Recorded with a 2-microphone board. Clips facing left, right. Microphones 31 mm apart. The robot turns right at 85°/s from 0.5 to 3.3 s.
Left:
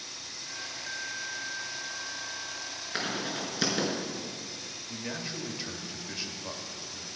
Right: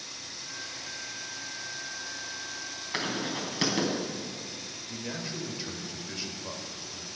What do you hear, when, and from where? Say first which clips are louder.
2.9 s writing: right 1 dB; 70° right (ahead or behind), 3 m; by 3.9 s 65° right (ahead or behind), 3 m
4.9 s a man speaking: even; 5° left (ahead or behind), 1.1 m